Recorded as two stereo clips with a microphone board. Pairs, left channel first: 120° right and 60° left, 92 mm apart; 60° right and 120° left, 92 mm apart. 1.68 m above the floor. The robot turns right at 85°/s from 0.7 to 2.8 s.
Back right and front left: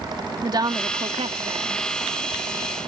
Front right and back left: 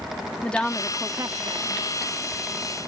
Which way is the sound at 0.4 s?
20° left.